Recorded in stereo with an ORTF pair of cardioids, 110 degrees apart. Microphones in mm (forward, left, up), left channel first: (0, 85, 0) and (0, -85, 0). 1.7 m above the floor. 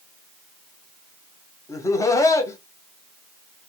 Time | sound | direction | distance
1.7 | laughter | 20° left | 0.9 m